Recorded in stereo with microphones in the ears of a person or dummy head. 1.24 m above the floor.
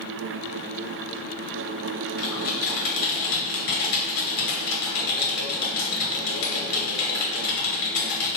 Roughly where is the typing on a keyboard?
Left.